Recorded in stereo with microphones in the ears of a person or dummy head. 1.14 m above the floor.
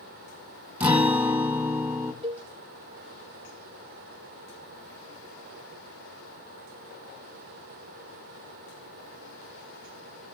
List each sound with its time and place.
0.8 s a guitar: 10° right (ahead or behind), 2 m
2.2 s a cowbell: 25° right (ahead or behind), 0.6 m